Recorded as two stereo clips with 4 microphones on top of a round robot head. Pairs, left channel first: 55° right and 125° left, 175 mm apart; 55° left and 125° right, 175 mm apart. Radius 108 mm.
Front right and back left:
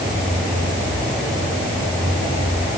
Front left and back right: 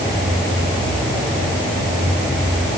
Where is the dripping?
No dripping in this recording.